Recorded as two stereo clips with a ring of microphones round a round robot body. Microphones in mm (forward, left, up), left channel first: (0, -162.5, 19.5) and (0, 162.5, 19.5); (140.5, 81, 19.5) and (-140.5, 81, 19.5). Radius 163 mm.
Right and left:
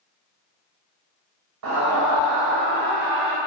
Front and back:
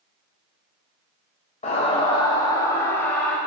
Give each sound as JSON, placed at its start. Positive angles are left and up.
{"t": 1.6, "sound": "a scream", "azimuth_deg": 65, "distance_m": 2.5}